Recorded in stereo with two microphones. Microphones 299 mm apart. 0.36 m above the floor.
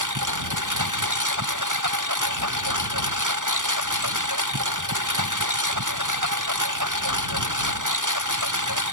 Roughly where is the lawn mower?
Right.